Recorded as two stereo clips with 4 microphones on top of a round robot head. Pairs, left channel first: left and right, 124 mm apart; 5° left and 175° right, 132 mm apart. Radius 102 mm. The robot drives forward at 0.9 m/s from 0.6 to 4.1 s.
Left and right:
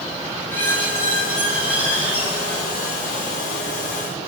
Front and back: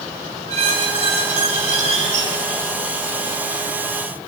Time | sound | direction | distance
0.5 | a squeak | 160° left | 6 m